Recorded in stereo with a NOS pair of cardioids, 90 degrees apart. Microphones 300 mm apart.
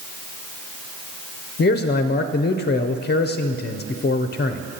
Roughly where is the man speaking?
Ahead left.